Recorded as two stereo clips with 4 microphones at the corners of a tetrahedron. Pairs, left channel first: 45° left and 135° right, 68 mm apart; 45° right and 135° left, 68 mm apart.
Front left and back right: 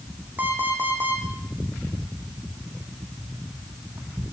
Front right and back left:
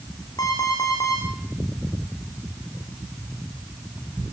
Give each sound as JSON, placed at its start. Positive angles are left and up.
{"t": 0.4, "sound": "an alarm clock", "azimuth_deg": -70, "distance_m": 9.5}